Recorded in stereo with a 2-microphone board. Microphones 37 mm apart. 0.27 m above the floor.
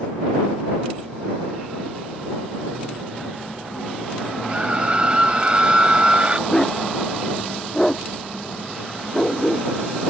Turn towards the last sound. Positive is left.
turn(degrees=15)  # may be behind; listen again after turning